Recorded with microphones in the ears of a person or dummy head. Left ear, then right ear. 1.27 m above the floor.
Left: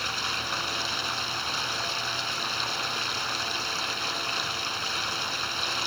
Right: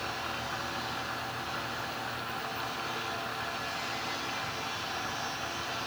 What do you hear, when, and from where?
0.0 s running water: 85° left